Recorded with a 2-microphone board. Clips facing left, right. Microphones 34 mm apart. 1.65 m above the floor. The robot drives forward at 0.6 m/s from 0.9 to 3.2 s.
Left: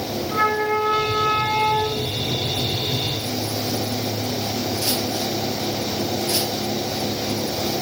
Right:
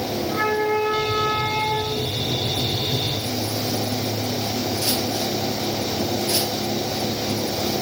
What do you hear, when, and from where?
0.3 s a flute: 15° left (ahead or behind), 4.5 m; by 2.1 s 10° left (ahead or behind), 5 m